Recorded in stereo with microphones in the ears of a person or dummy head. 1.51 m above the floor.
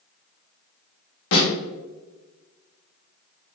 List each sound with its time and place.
1.3 s a snare drum: 75° left (ahead or behind), 1.9 m